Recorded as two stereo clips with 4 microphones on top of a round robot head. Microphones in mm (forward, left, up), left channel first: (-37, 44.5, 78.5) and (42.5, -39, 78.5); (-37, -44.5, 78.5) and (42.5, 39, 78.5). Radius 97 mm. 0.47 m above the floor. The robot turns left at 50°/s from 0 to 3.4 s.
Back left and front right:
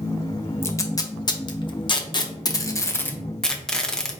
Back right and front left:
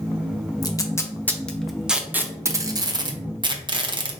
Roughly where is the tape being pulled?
Behind.